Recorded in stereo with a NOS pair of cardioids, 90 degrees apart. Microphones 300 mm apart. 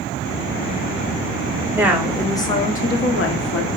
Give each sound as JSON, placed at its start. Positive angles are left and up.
{"t": 1.8, "sound": "a woman speaking", "azimuth_deg": -10, "distance_m": 0.9}